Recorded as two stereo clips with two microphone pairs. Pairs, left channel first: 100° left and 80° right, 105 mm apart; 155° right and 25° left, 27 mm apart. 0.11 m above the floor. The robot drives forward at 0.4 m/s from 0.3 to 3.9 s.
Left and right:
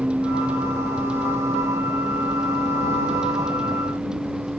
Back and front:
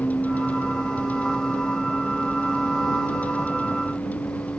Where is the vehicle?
160° right.